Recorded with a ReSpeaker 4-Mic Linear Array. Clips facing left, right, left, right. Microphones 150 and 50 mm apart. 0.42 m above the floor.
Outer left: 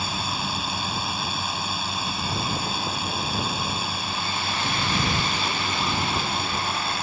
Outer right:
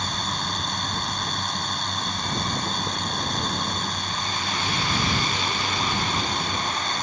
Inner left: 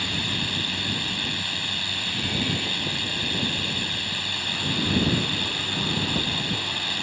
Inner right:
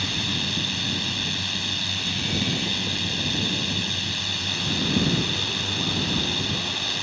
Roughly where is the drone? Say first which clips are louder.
Outer left 1 dB, even; centre.